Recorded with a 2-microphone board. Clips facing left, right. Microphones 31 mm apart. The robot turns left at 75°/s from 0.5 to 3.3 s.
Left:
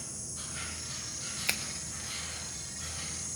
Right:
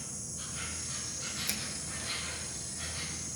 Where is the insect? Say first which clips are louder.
Even; 50° left, 5.5 m; by 3.4 s 160° right, 5.5 m.